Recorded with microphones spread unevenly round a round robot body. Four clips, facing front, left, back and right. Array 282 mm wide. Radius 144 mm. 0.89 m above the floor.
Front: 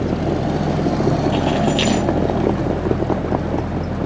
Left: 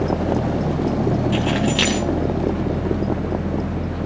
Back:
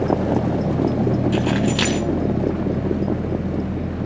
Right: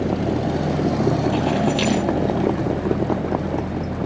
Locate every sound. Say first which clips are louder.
1.3 s keys jangling: even, front 2 dB; 155° left, 4 m